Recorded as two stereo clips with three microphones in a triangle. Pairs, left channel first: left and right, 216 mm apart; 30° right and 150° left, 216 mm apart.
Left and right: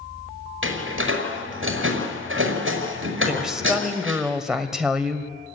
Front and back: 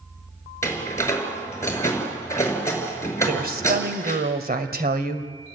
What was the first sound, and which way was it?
A door slam, 105° right.